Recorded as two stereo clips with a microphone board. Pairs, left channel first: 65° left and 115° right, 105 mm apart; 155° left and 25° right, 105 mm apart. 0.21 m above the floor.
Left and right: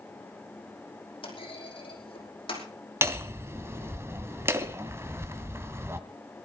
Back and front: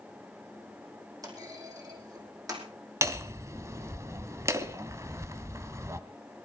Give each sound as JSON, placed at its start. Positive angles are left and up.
{"t": 1.2, "sound": "a clunk", "azimuth_deg": 30, "distance_m": 5.0}
{"t": 3.0, "sound": "hammering", "azimuth_deg": -65, "distance_m": 1.3}